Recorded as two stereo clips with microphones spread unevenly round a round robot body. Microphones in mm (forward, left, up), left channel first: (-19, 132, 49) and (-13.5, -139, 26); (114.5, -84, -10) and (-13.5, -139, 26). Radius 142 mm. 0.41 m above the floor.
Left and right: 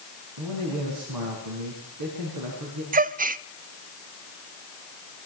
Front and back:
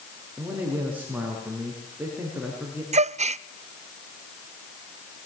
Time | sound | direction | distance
0.4 | a man speaking | 75° right | 6 m
2.9 | a gasp | 125° right | 0.5 m